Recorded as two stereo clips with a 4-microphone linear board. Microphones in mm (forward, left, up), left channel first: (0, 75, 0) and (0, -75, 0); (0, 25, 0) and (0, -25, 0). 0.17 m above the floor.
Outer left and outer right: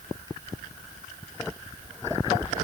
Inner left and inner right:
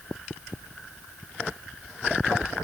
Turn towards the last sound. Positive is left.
No sound to turn to.